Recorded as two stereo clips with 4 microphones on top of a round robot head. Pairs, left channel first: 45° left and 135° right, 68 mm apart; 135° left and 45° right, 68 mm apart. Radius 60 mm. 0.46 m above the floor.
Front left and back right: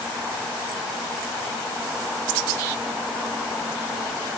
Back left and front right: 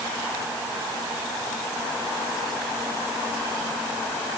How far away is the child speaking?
No child speaking in this recording.